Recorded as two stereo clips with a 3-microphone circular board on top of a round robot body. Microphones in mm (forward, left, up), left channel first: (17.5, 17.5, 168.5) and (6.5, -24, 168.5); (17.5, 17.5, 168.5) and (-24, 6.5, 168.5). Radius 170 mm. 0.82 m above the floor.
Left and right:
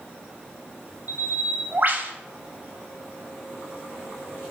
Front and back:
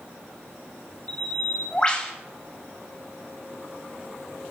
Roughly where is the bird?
Ahead right.